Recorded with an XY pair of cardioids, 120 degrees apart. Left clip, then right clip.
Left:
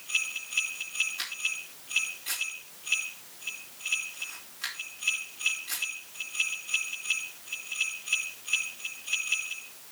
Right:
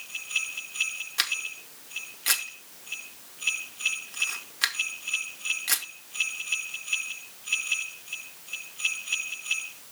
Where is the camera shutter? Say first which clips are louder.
Right 4 dB; 70° right, 2 m.